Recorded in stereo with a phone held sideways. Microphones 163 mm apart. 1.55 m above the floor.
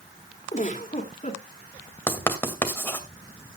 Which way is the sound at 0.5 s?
50° left (ahead or behind).